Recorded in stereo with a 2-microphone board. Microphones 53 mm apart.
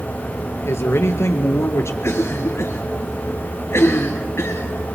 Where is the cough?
55° left (ahead or behind), 2.5 m.